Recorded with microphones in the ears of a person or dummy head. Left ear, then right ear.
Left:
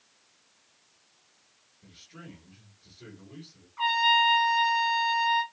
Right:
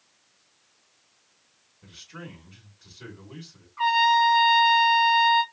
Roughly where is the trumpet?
Centre.